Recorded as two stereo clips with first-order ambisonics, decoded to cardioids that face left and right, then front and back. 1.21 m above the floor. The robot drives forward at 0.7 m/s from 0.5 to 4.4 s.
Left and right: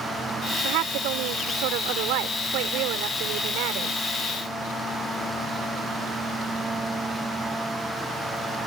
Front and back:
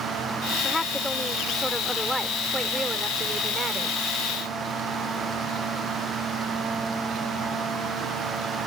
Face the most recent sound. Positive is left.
turn(degrees=-110)